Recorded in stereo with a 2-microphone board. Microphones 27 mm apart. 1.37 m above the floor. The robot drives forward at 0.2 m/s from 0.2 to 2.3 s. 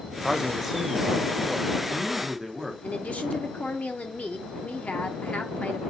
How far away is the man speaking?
About 0.5 m.